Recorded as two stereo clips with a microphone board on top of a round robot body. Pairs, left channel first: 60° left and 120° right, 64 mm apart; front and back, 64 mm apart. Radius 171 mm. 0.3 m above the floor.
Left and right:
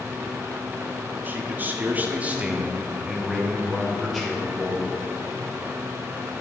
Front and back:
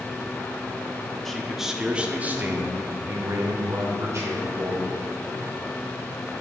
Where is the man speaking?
85° right, 1.0 m; by 4.9 s 150° left, 1.7 m.